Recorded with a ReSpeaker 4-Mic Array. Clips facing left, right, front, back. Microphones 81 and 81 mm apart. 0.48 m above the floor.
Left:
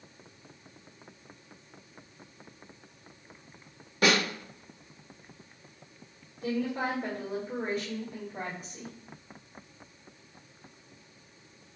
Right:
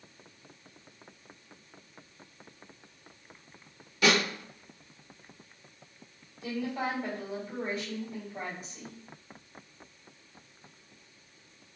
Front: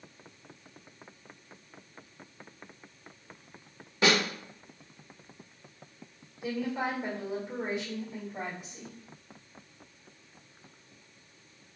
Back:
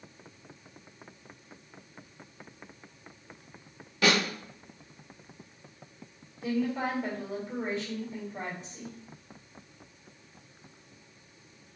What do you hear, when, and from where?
4.0 s a snare drum: 60° left, 1.1 m
6.4 s a woman speaking: 70° left, 1.5 m